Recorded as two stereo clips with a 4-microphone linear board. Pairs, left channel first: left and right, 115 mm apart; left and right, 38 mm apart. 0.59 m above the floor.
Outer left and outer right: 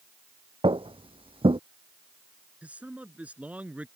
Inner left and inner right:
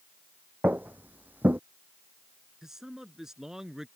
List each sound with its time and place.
0.6 s footsteps: 55° right (ahead or behind)
2.6 s a man speaking: 10° right (ahead or behind)